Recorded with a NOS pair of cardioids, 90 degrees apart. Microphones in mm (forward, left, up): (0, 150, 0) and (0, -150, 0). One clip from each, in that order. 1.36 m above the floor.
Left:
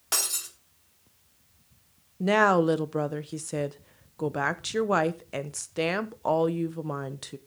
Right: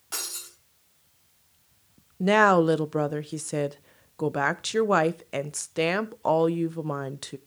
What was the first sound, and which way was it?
Breaking glass, 65° left.